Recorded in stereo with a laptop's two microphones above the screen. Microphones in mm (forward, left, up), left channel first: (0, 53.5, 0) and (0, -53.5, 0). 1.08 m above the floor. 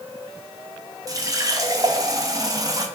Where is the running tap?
30° right (ahead or behind), 0.5 m.